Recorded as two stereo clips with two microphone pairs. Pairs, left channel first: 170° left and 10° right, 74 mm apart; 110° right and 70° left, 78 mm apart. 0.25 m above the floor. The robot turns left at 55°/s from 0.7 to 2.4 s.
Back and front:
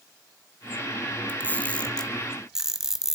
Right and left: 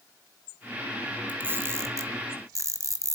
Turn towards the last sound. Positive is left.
turn(degrees=70)